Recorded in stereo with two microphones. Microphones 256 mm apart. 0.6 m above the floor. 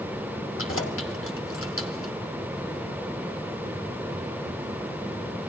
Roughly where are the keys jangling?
Left.